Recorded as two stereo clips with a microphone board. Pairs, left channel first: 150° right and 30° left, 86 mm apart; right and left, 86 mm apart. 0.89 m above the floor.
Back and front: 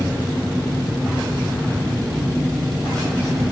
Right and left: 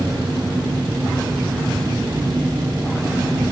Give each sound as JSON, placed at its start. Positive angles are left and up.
{"t": 0.0, "sound": "an engine running", "azimuth_deg": 125, "distance_m": 9.5}